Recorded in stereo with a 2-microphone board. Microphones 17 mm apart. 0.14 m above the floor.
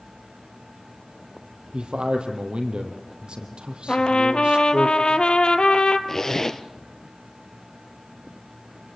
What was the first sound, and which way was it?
A man speaking, 70° right (ahead or behind).